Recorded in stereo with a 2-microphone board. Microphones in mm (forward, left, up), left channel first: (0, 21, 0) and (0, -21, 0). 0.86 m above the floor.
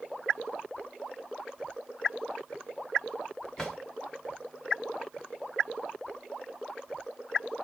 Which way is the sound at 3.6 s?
10° left (ahead or behind).